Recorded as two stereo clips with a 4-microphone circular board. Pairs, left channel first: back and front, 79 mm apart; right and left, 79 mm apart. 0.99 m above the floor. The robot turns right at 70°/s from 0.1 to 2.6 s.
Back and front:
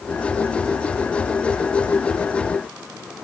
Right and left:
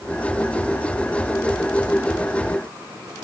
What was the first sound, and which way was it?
Only background noise.